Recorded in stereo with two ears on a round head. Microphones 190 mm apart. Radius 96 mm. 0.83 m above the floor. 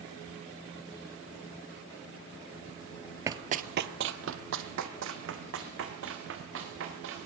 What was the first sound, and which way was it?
Running footsteps, 15° right (ahead or behind).